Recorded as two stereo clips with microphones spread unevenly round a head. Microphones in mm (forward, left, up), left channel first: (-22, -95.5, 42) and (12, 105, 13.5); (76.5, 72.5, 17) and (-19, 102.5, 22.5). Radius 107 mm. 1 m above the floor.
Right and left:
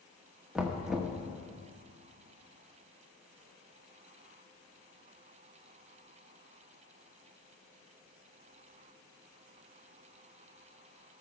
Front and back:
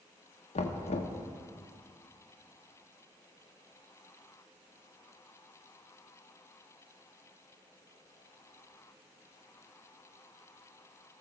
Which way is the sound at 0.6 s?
10° right.